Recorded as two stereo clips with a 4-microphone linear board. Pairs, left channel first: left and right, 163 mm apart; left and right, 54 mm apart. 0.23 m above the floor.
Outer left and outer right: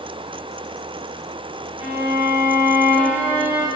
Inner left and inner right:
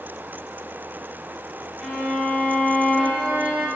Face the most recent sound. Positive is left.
turn(degrees=-15)  # may be behind; listen again after turning